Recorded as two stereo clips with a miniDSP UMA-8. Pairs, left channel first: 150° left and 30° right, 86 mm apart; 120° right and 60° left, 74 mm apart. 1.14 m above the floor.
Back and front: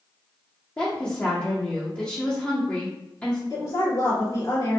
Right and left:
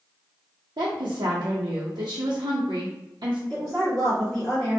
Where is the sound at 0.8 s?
75° left, 0.5 m.